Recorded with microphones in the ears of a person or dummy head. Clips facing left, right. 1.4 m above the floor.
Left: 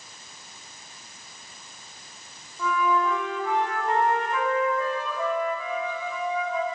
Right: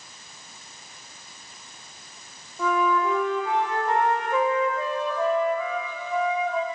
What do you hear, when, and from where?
2.6 s a flute: 35° right (ahead or behind), 1.6 m